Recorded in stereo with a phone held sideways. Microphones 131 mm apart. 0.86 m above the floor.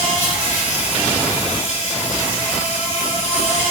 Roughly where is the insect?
Left.